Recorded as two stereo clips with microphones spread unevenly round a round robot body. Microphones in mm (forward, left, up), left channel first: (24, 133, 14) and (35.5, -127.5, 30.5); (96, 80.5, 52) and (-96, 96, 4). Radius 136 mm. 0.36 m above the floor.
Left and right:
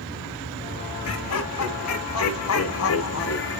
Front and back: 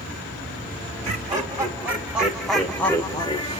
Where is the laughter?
120° left, 2 m; by 3.6 s 60° left, 1.5 m.